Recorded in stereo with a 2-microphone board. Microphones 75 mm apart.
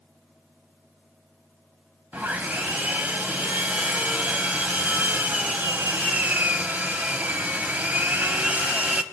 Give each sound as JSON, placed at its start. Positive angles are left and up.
{"t": 2.1, "sound": "sawing", "side_deg": -20, "distance_m": 0.9}